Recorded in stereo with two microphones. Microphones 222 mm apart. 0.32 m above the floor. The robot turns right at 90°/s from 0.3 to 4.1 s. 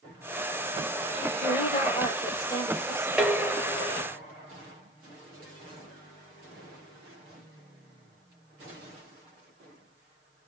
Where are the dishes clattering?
5° right, 0.7 m; by 4.1 s 75° left, 0.7 m.